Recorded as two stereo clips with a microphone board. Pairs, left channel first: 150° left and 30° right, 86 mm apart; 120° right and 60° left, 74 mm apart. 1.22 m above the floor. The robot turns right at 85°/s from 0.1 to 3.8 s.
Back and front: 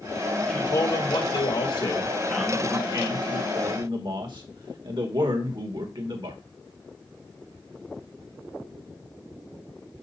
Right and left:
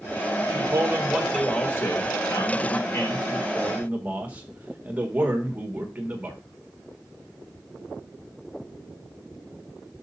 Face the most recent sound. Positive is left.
turn(degrees=-10)